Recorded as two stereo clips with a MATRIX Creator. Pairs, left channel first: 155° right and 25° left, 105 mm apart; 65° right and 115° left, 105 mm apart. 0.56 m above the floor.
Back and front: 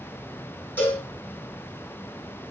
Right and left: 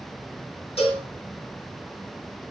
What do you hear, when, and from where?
0.8 s a cowbell: 90° right, 4.5 m